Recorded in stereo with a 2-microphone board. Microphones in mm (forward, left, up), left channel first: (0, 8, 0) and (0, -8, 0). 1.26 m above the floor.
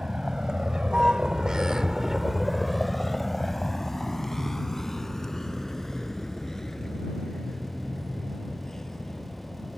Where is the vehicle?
65° right (ahead or behind); by 9.8 s 40° left (ahead or behind).